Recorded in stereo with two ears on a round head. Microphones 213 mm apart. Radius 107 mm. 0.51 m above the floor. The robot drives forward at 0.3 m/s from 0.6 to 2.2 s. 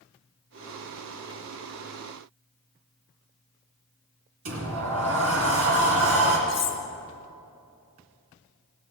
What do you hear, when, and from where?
4.5 s a sliding door: 60° right (ahead or behind), 2.5 m
6.5 s cutlery clinking: 30° left (ahead or behind), 1.6 m